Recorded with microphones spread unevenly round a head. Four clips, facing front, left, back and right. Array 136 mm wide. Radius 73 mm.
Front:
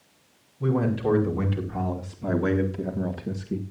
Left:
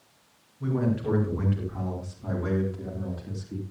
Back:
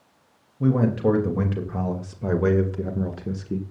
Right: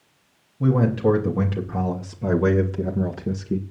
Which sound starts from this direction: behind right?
A man speaking, at 0.6 s.